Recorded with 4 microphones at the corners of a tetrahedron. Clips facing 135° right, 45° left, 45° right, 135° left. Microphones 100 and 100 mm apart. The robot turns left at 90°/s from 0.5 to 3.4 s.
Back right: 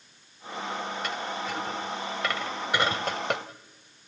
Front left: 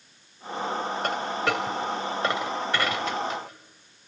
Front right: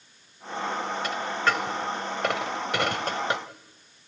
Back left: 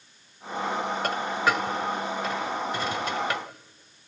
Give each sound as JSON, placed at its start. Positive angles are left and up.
{"t": 1.0, "sound": "a dropped coin", "azimuth_deg": 95, "distance_m": 2.0}